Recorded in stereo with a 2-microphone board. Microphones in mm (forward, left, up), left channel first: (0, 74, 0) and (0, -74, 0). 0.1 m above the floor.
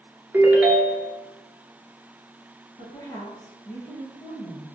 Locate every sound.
0.3 s a ringtone: 15° right (ahead or behind), 0.5 m
2.8 s a woman speaking: 25° left (ahead or behind), 1.3 m